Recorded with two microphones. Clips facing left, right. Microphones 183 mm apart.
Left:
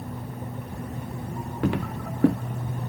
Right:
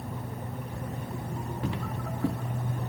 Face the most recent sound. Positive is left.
turn(degrees=75)  # may be behind; listen again after turning